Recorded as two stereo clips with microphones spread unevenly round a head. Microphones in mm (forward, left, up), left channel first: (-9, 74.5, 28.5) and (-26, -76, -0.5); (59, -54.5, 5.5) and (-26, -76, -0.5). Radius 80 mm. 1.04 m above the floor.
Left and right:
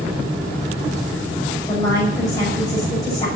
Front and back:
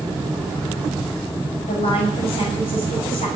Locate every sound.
1.7 s a woman speaking: 15° left, 6 m